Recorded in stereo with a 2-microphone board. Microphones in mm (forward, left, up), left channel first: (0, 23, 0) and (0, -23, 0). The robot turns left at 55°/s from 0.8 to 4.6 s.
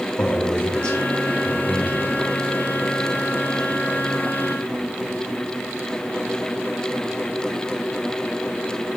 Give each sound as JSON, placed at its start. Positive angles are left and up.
{"t": 0.2, "sound": "a man speaking", "side_deg": 25, "distance_m": 3.0}